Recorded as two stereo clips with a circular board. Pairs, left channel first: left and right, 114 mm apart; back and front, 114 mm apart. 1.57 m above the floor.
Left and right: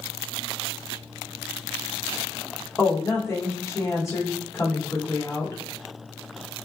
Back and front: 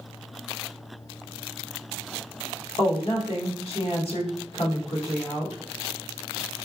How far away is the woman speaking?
About 1.0 m.